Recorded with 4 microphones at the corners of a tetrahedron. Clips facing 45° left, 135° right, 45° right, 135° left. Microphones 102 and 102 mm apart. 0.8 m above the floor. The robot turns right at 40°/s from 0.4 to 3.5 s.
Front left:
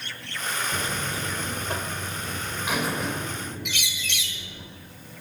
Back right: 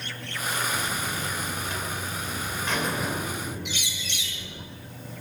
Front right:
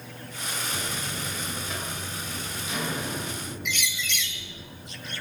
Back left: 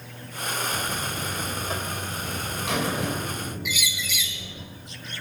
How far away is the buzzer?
About 2.5 m.